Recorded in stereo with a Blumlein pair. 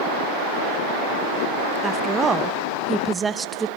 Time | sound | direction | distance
1.8 | a woman speaking | 15° right | 0.8 m